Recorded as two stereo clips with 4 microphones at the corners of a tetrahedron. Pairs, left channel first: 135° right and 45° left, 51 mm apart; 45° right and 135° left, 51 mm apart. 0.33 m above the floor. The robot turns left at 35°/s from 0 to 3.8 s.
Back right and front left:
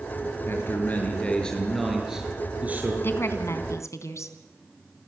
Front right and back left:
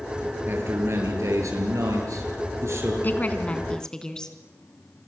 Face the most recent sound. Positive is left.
turn(degrees=-120)